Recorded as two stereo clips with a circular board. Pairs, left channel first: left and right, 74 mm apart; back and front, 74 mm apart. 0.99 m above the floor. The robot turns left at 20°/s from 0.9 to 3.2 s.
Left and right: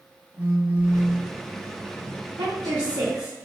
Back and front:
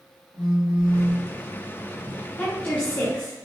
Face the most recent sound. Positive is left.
turn(degrees=-125)